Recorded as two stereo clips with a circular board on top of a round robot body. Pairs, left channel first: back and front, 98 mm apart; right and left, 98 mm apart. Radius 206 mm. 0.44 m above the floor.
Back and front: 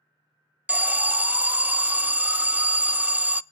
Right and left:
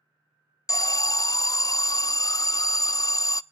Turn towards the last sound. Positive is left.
turn(degrees=-65)